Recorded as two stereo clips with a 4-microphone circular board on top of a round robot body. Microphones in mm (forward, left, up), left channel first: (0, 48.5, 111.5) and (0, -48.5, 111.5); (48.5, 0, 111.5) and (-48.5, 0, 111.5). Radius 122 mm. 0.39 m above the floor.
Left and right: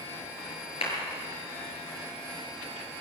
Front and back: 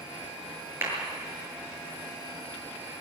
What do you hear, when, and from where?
0.8 s a clap: 115° left, 7.5 m